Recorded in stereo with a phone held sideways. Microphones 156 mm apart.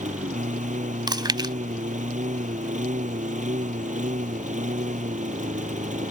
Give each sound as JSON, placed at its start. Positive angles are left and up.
{"t": 0.0, "sound": "a lawn mower", "side_deg": -55}
{"t": 1.1, "sound": "chewing", "side_deg": -30}